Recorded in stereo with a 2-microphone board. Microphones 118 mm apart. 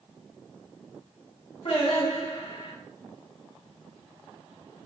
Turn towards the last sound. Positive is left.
turn(degrees=60)  # may be behind; listen again after turning